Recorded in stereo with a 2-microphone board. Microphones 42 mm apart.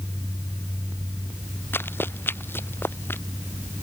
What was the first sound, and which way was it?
Running footsteps, 60° left (ahead or behind).